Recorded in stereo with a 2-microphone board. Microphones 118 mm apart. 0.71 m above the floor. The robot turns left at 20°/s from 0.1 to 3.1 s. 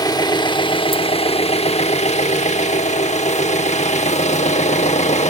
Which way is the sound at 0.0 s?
145° left.